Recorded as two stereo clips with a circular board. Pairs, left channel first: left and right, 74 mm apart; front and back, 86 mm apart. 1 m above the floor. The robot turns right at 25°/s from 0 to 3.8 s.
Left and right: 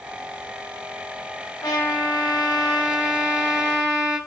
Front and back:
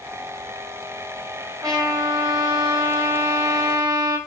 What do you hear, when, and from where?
1.6 s a trumpet: 130° left, 4.5 m; by 4.2 s 175° right, 4.5 m